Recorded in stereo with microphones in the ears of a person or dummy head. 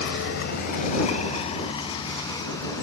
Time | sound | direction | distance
0.0 | a vehicle | 70° left (ahead or behind) | ?